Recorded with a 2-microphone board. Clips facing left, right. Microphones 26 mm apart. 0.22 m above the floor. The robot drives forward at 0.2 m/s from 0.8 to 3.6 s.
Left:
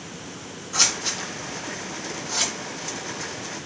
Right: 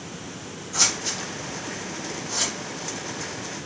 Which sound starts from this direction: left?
Scissors, at 0.7 s.